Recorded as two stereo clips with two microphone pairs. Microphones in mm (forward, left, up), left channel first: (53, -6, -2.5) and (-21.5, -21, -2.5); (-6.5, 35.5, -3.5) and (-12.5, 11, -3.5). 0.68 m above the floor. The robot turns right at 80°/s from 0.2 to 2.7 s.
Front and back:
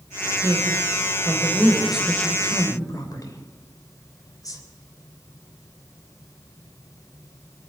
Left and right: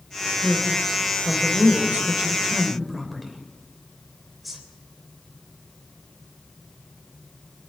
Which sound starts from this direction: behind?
A man speaking, at 0.4 s.